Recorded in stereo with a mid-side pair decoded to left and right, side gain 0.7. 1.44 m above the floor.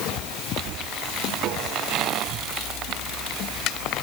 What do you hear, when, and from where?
Only background noise.